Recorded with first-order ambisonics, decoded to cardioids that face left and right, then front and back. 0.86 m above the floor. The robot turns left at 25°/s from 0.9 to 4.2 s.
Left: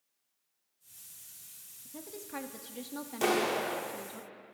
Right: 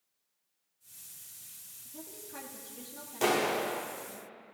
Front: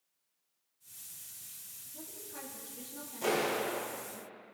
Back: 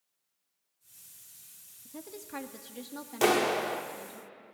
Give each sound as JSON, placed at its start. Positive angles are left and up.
{"t": 1.9, "sound": "a woman speaking", "azimuth_deg": 160, "distance_m": 1.3}
{"t": 3.2, "sound": "a clap", "azimuth_deg": -175, "distance_m": 1.5}